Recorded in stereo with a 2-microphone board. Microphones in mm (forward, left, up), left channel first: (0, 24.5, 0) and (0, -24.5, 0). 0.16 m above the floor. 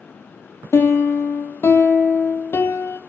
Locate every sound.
0.7 s a piano: 65° left (ahead or behind), 2 m